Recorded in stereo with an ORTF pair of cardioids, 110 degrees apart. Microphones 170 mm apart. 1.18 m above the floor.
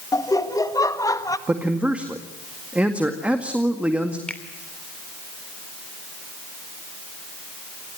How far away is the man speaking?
About 1.9 m.